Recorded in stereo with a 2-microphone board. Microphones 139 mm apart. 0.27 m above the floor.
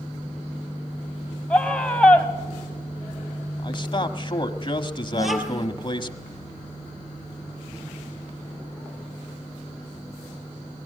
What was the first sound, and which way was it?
A scream, 10° left (ahead or behind).